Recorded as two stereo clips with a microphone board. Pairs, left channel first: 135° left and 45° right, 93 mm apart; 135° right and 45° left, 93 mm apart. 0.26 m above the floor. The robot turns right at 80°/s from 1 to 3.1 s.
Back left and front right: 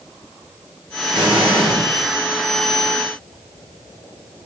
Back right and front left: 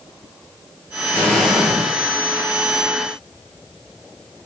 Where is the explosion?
70° right, 1.4 m; by 1.9 s 15° right, 1.4 m.